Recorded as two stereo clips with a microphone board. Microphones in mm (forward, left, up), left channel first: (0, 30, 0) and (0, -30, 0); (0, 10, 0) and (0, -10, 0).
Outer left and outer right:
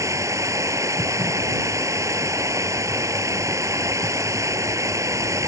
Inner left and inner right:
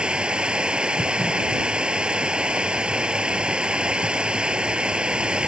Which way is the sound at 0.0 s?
60° right (ahead or behind).